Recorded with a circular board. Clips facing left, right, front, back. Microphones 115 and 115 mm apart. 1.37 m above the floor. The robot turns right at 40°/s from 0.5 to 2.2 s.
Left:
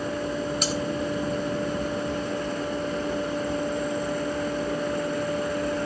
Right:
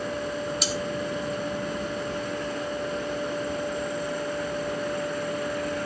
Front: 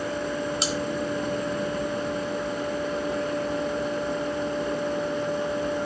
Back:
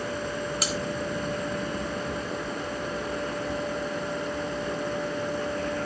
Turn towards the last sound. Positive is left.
turn(degrees=125)